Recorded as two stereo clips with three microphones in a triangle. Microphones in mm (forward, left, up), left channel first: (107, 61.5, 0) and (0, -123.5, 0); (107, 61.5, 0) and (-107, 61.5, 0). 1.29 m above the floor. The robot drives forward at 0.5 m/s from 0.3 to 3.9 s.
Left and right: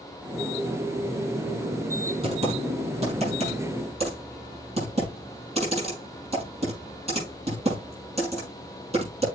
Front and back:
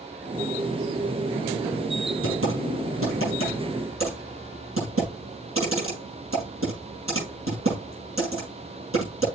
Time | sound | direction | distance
2.2 | typing on a keyboard | straight behind | 6 m